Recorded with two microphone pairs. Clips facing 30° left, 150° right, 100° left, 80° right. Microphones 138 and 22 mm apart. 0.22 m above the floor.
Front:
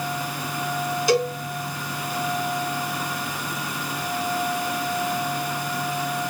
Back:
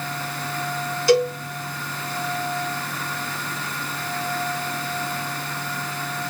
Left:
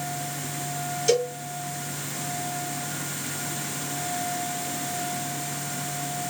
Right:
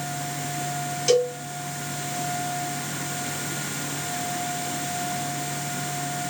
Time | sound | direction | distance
1.1 | a cowbell | 25° right | 1.8 m